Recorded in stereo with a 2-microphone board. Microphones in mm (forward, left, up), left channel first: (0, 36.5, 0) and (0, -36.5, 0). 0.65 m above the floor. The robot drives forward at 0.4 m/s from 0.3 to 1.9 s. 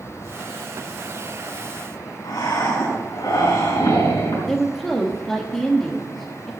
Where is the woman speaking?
5° left (ahead or behind), 1.1 m.